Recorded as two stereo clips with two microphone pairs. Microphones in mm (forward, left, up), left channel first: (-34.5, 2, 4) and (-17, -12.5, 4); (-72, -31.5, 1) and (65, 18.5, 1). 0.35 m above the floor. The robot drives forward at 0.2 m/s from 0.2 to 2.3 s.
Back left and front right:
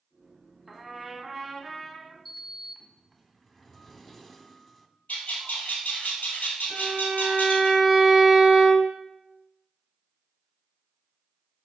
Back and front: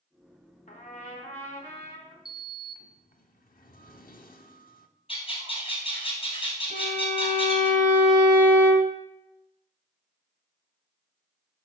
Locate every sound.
0.7 s a trumpet: 130° right, 1.0 m; by 2.1 s 140° right, 1.2 m
2.2 s a sliding door: 140° right, 0.5 m; by 4.9 s 145° right, 0.5 m
5.1 s a bird: 150° left, 1.9 m
6.7 s a violin: 40° left, 1.9 m